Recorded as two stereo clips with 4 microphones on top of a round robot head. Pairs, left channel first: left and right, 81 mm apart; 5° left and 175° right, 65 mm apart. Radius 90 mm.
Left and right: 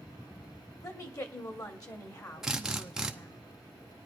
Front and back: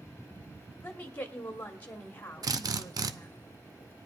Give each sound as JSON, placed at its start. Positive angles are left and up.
{"t": 0.8, "sound": "a woman speaking", "azimuth_deg": 65, "distance_m": 1.3}
{"t": 2.4, "sound": "a drill", "azimuth_deg": -175, "distance_m": 0.7}